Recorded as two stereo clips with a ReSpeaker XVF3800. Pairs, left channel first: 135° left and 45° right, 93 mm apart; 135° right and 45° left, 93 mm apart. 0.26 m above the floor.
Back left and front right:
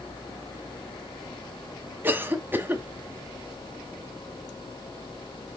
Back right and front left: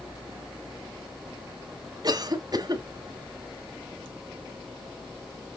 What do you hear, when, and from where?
2.0 s a cough: 20° left, 1.8 m